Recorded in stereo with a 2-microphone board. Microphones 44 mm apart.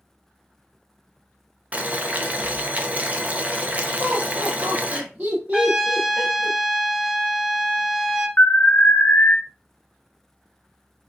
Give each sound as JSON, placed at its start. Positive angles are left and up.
{"t": 1.7, "sound": "boiling", "side_deg": -30, "distance_m": 0.6}
{"t": 4.0, "sound": "laughter", "side_deg": -30, "distance_m": 1.1}
{"t": 5.5, "sound": "a trumpet", "side_deg": -20, "distance_m": 1.4}
{"t": 8.4, "sound": "an alarm", "side_deg": 40, "distance_m": 0.7}